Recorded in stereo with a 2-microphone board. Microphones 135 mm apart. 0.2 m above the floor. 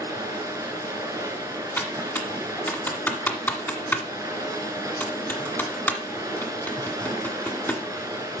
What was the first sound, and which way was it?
Running water, 25° right (ahead or behind).